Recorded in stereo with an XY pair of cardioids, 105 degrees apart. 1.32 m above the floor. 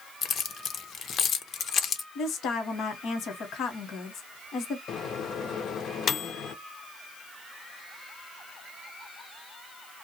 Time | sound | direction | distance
0.2 | keys jangling | 55° left | 0.5 m
2.1 | a woman speaking | 65° left | 0.9 m
4.9 | a microwave | 55° left | 0.5 m